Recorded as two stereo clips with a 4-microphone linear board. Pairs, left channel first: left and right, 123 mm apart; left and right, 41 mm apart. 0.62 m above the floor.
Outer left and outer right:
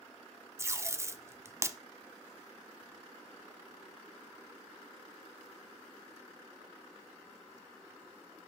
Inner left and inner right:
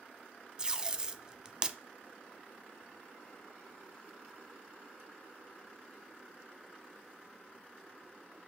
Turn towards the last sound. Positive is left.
turn(degrees=-20)  # may be behind; listen again after turning